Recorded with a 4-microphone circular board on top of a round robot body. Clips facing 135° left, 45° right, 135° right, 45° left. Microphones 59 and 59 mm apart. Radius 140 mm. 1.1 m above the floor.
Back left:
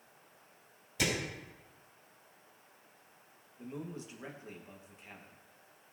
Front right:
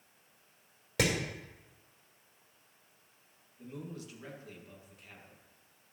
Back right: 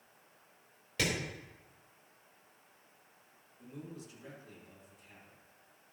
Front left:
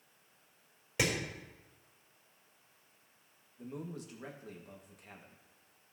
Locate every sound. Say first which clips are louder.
1.0 s hammering: front right 3 dB, front left 1 dB; 30° right, 4.5 m
3.6 s a man speaking: back left 1 dB, front left 4 dB; 70° left, 2 m